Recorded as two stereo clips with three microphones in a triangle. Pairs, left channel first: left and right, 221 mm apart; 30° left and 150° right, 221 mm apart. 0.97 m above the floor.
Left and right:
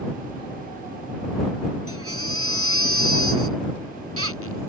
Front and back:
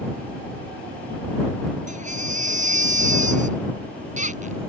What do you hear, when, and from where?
1.9 s a baby crying: 95° right